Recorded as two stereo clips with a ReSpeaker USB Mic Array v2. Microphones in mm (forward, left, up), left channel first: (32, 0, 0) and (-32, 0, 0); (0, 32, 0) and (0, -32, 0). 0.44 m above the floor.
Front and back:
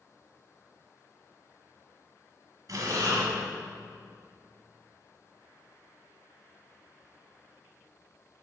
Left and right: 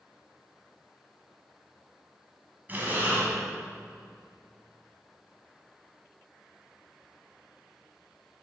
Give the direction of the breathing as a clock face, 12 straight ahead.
5 o'clock.